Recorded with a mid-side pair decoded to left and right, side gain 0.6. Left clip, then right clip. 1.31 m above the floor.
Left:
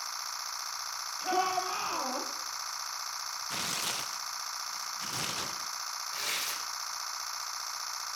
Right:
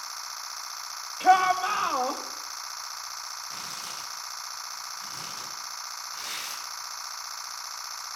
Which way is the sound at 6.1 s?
40° left.